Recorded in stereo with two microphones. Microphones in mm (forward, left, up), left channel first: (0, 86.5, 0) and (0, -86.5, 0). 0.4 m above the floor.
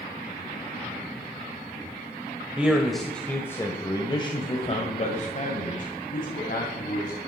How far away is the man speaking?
About 1.6 m.